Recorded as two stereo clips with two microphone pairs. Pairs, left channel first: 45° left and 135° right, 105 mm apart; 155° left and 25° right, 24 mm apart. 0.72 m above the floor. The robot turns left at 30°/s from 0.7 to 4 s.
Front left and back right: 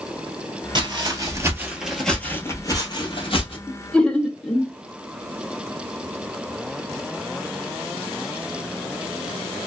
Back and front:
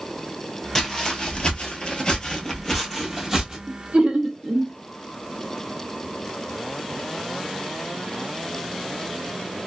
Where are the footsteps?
135° right, 0.9 m; by 3.6 s 40° left, 1.3 m.